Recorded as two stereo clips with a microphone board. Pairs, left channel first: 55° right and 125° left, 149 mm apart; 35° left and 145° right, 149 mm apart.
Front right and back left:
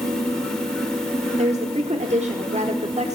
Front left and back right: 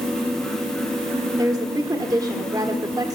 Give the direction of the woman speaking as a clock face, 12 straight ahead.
7 o'clock.